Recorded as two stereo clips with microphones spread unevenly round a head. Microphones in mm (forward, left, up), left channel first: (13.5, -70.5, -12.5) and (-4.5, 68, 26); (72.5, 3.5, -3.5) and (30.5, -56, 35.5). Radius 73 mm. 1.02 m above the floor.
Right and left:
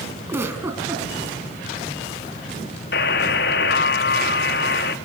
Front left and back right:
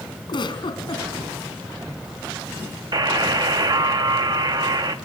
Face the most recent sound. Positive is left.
turn(degrees=-90)